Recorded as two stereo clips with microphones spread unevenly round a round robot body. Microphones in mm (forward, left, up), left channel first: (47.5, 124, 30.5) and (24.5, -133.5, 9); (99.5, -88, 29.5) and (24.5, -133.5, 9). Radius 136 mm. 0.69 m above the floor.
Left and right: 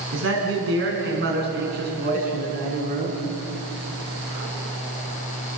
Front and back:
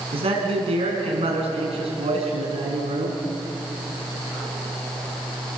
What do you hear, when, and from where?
0.1 s a man speaking: 145° right, 5.5 m; by 3.2 s 160° right, 7 m